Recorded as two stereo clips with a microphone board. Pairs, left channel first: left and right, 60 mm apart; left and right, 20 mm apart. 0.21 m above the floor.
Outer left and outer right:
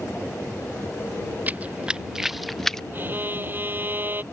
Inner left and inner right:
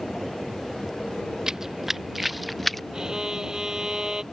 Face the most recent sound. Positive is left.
turn(degrees=-35)  # may be behind; listen again after turning